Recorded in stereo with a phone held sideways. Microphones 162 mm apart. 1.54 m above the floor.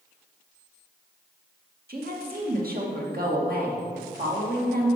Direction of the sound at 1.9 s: 65° right (ahead or behind).